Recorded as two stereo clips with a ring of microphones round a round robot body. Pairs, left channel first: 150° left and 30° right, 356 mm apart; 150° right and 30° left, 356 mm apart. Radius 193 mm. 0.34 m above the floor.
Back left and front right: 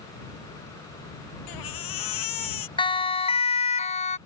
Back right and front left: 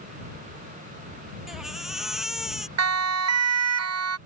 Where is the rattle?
No rattle in this recording.